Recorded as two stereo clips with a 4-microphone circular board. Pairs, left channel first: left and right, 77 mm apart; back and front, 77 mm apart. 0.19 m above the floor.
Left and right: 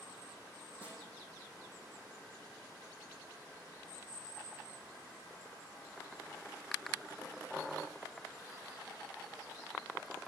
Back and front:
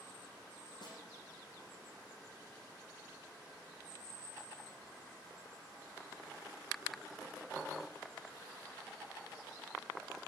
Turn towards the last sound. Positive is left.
turn(degrees=-160)